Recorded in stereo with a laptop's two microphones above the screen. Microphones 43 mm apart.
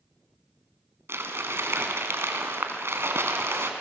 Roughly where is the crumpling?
Right.